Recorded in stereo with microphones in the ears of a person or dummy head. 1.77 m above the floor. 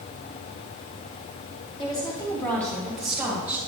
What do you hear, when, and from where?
1.8 s a woman speaking: 30° left (ahead or behind), 1.3 m; by 3.6 s 10° right (ahead or behind), 2 m